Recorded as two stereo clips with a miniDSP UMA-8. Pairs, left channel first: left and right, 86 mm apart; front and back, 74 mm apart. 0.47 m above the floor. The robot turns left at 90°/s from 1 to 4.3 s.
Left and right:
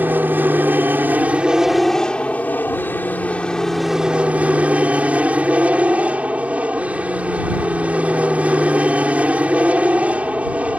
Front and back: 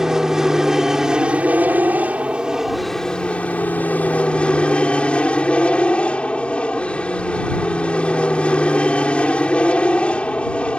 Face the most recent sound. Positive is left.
turn(degrees=-45)